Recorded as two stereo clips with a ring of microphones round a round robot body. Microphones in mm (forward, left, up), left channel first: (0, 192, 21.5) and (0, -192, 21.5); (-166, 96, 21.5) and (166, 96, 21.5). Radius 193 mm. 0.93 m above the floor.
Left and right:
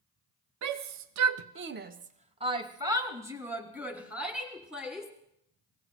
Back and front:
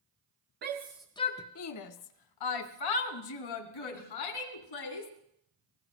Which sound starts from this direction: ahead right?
A shout, at 0.6 s.